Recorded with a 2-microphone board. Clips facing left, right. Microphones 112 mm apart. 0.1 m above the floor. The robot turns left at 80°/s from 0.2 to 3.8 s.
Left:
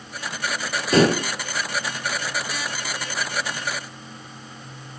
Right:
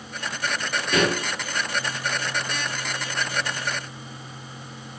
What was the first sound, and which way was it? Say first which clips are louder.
Dishes clattering: left 6 dB; 30° left (ahead or behind).